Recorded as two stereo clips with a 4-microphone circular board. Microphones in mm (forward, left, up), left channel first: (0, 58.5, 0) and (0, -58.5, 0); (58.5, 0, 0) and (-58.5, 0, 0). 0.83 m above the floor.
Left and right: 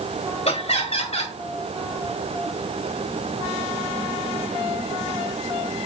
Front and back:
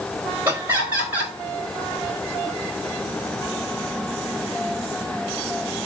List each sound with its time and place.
0.5 s laughter: 105° left, 4.5 m